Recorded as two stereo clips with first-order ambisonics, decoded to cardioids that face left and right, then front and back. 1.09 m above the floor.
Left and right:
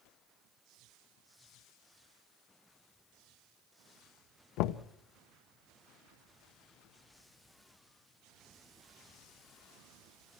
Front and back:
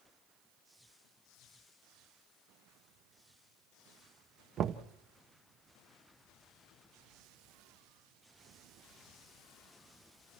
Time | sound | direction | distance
4.6 | knocking | 120° left | 0.8 m